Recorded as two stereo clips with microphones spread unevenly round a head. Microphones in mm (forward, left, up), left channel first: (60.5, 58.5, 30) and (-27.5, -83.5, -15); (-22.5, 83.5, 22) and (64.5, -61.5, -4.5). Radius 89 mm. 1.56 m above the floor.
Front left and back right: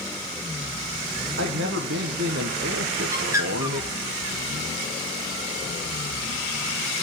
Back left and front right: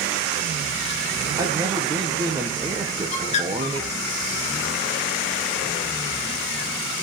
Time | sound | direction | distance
1.4 | a man speaking | 130° right | 1.4 m
3.1 | a bird | 155° left | 1.7 m